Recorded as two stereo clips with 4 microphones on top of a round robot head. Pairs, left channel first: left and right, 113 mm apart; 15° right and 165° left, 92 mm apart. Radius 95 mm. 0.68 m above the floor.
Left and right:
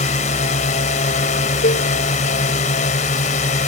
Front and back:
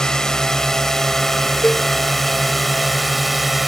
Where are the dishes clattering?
65° left.